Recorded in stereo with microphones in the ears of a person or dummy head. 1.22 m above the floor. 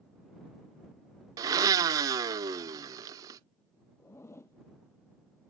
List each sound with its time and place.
1.4 s a blender: 20° right (ahead or behind)
4.0 s a zipper: 15° left (ahead or behind)